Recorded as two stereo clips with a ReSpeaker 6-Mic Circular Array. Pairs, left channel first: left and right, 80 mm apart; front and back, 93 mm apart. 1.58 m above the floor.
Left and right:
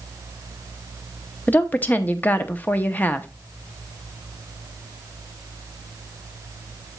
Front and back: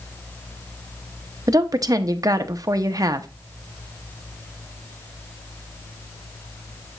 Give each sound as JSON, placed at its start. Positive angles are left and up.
{"t": 1.5, "sound": "a woman speaking", "azimuth_deg": 150, "distance_m": 0.6}